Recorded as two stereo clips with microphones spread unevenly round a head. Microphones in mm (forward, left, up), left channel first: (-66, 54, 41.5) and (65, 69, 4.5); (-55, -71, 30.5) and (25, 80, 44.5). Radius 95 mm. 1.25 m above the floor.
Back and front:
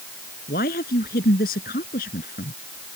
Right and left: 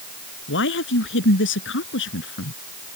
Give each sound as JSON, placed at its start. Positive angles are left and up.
{"t": 0.5, "sound": "a man speaking", "azimuth_deg": -130}